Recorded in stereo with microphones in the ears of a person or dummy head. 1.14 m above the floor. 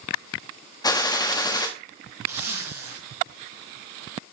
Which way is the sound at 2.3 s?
10° right (ahead or behind).